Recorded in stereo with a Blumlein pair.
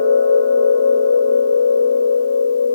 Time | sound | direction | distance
0.0 | a machine running | 60° left | 0.7 m